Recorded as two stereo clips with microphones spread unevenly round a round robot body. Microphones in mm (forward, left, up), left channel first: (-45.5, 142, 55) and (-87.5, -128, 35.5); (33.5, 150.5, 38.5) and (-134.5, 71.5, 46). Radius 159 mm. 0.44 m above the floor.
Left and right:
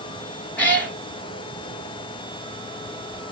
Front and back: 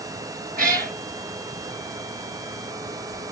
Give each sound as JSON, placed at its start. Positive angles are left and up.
{"t": 0.6, "sound": "a cat meowing", "azimuth_deg": 165, "distance_m": 1.9}